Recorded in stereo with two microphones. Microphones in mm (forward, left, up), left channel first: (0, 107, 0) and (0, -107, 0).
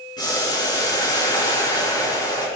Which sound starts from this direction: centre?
Boiling, at 0.2 s.